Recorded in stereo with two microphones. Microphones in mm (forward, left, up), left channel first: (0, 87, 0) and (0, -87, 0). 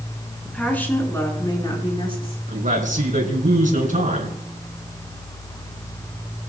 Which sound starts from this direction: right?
A man speaking, at 2.5 s.